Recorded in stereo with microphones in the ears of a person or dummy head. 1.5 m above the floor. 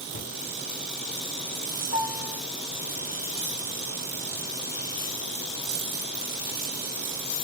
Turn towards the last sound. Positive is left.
turn(degrees=75)  # may be behind; listen again after turning